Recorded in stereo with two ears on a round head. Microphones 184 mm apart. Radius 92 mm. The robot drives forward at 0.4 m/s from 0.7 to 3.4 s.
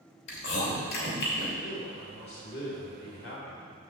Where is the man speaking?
45° left (ahead or behind), 2.5 m; by 3.9 s 55° left (ahead or behind), 2 m.